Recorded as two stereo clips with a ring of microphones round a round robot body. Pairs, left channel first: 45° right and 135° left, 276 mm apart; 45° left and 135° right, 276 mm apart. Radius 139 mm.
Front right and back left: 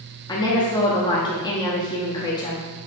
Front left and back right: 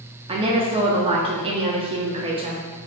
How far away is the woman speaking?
About 0.6 m.